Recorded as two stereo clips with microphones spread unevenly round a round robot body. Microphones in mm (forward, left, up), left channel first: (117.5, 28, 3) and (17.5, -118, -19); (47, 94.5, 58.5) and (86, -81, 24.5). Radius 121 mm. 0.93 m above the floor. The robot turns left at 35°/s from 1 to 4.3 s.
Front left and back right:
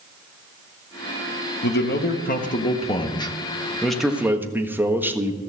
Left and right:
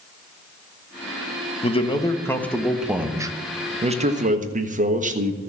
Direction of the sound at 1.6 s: 45° left.